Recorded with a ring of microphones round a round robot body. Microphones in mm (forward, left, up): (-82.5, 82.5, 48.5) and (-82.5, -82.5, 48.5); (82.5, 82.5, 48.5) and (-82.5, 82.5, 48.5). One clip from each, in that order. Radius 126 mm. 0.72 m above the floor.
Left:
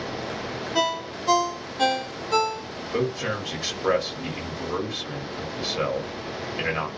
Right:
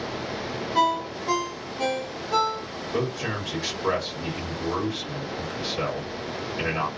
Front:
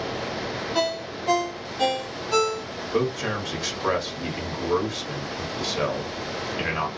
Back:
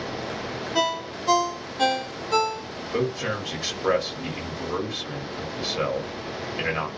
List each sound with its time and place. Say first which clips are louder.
0.8 s a ringtone: right 3 dB, back 2 dB; 105° left, 0.8 m
2.9 s a man speaking: left 2 dB, front 1 dB; 100° left, 1.3 m